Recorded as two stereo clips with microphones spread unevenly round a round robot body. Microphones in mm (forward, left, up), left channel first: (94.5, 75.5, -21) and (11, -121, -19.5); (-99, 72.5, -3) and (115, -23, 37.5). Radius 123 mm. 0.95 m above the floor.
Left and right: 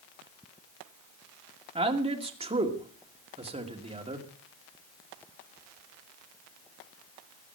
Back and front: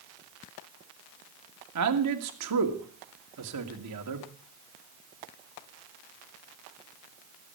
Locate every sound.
1.8 s a man speaking: 50° right, 2.5 m